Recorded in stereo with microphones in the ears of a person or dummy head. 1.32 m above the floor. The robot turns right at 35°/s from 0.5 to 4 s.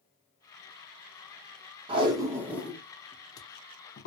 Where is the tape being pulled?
30° right (ahead or behind), 0.6 m; by 4.1 s 40° left (ahead or behind), 0.6 m.